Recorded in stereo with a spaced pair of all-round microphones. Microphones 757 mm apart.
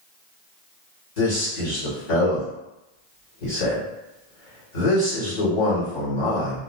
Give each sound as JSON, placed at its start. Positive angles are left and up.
{"t": 1.2, "sound": "a man speaking", "side_deg": 75, "distance_m": 1.8}